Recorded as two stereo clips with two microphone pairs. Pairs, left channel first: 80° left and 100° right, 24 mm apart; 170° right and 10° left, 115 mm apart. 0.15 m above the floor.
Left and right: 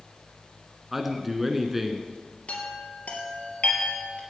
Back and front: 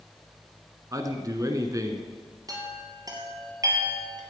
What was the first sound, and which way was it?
A man speaking, 25° right.